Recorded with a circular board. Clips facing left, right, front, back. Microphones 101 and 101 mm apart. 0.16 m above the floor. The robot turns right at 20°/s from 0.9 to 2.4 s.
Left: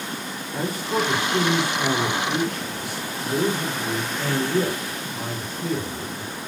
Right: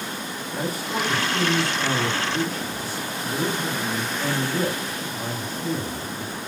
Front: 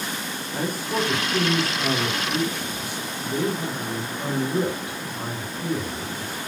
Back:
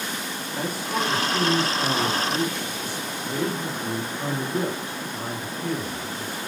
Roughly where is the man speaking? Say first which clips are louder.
Left 3 dB, front 2 dB; ahead left.